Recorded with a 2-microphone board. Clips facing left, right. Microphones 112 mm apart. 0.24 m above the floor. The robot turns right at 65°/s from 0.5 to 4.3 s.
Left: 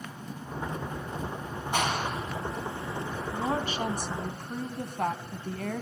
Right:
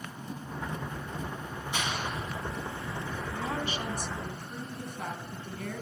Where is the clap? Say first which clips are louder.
Left 5 dB; 55° left (ahead or behind), 1.6 m; by 3.2 s 15° right (ahead or behind), 1.6 m.